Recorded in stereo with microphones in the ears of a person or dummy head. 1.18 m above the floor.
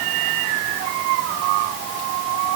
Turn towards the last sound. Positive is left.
No sound to turn to.